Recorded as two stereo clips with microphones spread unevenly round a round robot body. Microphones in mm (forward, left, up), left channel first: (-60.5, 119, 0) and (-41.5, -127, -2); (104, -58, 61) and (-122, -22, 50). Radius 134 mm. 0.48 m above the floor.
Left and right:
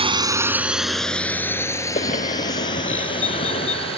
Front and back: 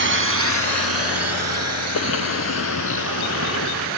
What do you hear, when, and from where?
0.0 s a drone: 155° right; by 4.0 s 160° left
1.9 s a bird: 25° left